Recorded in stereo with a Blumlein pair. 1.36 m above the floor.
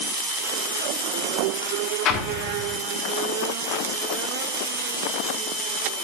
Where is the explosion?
30° left, 1.7 m.